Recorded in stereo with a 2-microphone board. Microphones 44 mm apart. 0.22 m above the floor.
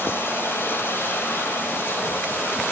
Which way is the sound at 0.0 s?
60° left (ahead or behind).